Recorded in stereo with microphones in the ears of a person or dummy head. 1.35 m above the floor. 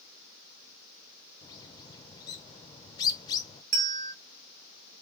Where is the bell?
60° right (ahead or behind), 1.6 m.